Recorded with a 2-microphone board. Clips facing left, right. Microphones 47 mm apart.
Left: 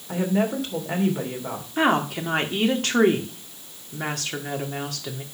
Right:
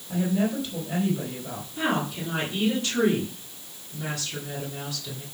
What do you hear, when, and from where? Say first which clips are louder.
0.1 s a woman speaking: left 2 dB; 75° left (ahead or behind), 2.5 m
1.8 s a woman speaking: left 6 dB; 70° left (ahead or behind), 1.8 m